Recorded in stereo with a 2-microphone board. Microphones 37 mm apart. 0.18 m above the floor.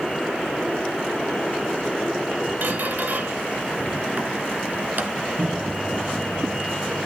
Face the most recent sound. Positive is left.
turn(degrees=-70)  # may be behind; listen again after turning